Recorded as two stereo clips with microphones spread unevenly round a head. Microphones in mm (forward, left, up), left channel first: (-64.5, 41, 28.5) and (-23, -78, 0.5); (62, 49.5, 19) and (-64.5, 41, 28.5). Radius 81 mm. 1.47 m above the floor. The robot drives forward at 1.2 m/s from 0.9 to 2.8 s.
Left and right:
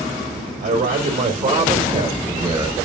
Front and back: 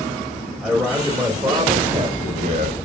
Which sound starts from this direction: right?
A man speaking, at 0.6 s.